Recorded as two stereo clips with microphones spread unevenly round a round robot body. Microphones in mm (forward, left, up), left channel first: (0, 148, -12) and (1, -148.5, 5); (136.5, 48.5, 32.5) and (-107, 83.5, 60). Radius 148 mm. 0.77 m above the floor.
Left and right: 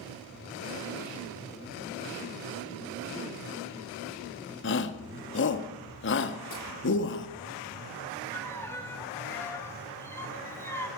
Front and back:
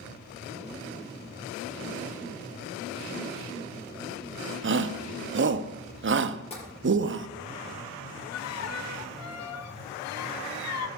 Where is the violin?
10° left, 1.3 m.